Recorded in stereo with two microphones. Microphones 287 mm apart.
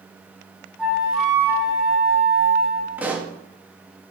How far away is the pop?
About 0.9 m.